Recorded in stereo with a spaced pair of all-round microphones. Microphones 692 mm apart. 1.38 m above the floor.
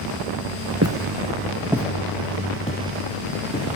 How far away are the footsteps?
About 1.6 m.